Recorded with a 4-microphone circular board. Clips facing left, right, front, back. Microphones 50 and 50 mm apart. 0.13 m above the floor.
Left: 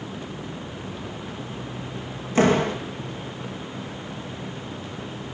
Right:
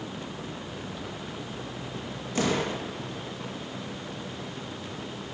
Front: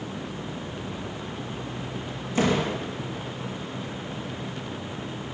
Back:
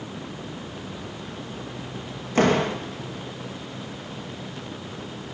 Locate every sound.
2.4 s a door slam: 145° left, 4.5 m